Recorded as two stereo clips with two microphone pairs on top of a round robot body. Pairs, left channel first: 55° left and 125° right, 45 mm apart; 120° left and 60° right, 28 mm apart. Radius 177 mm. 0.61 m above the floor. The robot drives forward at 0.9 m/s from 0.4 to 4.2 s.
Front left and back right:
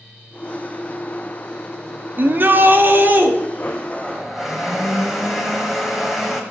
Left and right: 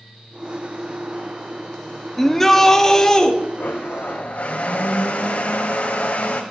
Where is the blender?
120° left, 0.5 m; by 6.4 s 155° left, 0.9 m.